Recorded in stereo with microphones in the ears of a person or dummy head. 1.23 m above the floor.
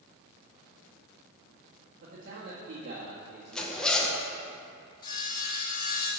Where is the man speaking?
45° right (ahead or behind), 1.6 m.